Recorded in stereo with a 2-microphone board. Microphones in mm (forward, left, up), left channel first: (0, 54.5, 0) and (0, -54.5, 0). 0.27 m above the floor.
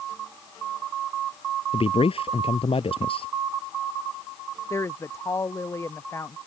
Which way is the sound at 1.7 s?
60° left (ahead or behind).